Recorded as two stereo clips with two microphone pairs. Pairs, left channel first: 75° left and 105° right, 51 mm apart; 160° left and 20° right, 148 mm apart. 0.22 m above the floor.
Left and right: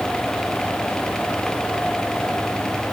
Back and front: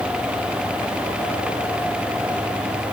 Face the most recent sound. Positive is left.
No sound to turn to.